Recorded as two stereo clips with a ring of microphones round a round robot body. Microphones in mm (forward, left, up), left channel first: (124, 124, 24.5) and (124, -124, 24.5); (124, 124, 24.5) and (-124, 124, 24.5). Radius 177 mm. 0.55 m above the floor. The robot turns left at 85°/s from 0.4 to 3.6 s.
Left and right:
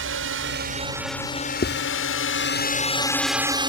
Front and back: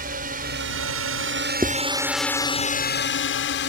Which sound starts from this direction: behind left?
Writing, at 1.6 s.